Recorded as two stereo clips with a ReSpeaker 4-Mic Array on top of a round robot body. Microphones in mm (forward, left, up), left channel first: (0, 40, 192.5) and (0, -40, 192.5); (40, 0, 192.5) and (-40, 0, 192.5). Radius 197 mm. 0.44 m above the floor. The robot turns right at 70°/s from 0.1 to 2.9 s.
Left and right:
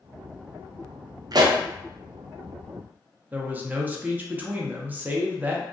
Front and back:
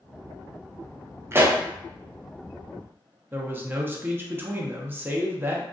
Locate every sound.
1.3 s a pop: 120° right, 0.5 m; by 1.6 s 100° right, 0.5 m
3.3 s a man speaking: 140° right, 0.8 m